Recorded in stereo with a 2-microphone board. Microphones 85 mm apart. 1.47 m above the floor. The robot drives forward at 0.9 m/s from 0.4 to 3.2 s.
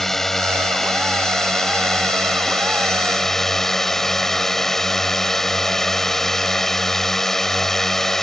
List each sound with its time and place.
0.0 s a drone: 5° left (ahead or behind)